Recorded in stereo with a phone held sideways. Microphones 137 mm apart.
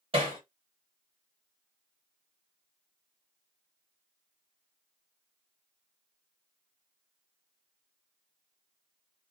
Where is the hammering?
40° right (ahead or behind), 1.8 m.